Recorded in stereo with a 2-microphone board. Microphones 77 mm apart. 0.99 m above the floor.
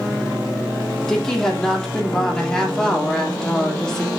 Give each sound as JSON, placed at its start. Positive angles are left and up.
{"t": 1.1, "sound": "a woman speaking", "side_deg": 10, "distance_m": 2.5}